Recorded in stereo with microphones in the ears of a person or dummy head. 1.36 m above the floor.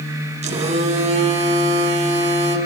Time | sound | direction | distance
0.4 | a phone buzzing | 30° right (ahead or behind) | 3 m